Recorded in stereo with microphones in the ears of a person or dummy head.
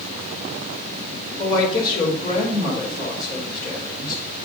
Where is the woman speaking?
25° left (ahead or behind), 4 m.